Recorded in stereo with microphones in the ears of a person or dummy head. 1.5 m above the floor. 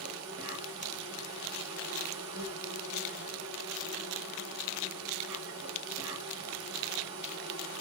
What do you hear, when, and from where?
0.0 s an insect: 65° right (ahead or behind), 1.6 m